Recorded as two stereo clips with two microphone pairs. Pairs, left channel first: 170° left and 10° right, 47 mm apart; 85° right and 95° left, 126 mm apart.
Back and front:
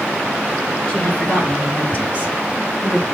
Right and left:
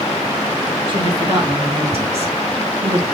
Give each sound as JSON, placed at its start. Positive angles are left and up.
{"t": 0.9, "sound": "a woman speaking", "azimuth_deg": 110, "distance_m": 1.7}